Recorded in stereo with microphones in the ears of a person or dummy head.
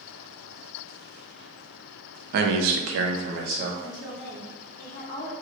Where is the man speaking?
50° right (ahead or behind), 0.6 m; by 3.7 s 40° right (ahead or behind), 1.0 m.